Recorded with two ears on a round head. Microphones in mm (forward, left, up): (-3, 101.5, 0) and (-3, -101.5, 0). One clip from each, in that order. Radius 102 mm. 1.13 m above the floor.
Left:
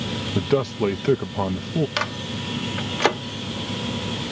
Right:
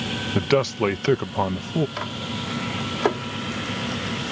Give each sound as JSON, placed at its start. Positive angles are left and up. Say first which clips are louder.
{"t": 0.3, "sound": "a man speaking", "louder": "right 1 dB", "side_deg": -65}
{"t": 2.0, "sound": "a microwave", "louder": "left 3 dB", "side_deg": 75}